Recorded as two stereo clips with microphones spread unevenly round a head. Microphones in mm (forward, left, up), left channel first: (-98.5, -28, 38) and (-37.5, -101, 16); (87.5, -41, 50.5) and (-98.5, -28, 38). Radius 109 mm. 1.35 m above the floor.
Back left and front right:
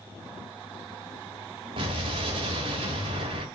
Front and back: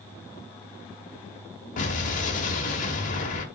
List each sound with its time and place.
1.8 s an explosion: 20° right, 1.3 m